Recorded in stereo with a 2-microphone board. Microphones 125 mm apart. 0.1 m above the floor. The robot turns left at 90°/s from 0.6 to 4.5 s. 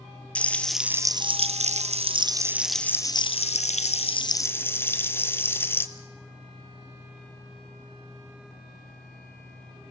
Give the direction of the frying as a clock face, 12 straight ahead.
12 o'clock.